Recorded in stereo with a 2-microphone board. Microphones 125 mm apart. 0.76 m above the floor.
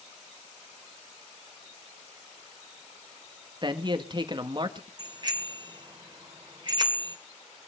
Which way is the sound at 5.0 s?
35° right (ahead or behind).